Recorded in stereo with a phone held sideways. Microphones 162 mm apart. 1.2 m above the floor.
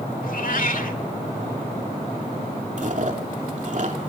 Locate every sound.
0.2 s a cat meowing: 65° left (ahead or behind), 1.8 m
2.8 s chewing: 55° right (ahead or behind), 2.5 m